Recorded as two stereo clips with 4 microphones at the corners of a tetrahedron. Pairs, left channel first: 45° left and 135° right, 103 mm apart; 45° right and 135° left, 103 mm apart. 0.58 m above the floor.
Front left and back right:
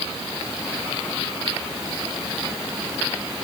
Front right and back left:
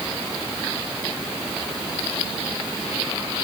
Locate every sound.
Only background noise.